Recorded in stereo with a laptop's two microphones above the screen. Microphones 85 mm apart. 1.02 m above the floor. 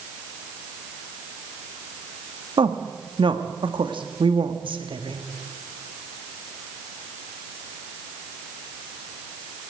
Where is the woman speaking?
75° right (ahead or behind), 1.4 m.